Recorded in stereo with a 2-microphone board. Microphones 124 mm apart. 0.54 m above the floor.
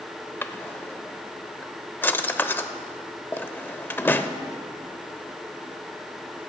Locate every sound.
0.4 s a drawer: 15° left (ahead or behind), 0.5 m